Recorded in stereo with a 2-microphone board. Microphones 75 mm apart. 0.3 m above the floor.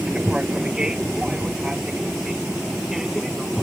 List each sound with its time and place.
0.0 s an aircraft: 10° right (ahead or behind); by 3.6 s 5° right (ahead or behind)